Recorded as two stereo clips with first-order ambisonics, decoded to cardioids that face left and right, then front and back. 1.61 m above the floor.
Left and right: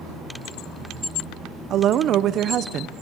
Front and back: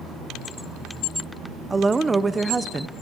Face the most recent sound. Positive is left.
turn(degrees=-110)